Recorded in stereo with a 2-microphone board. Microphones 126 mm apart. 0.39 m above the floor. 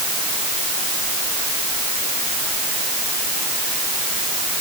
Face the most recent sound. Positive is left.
No sound to turn to.